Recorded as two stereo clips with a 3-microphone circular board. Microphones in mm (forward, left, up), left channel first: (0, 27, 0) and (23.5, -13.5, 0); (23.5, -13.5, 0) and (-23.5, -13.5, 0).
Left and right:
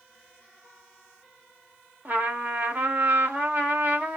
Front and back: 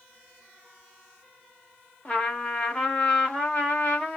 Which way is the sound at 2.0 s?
45° right.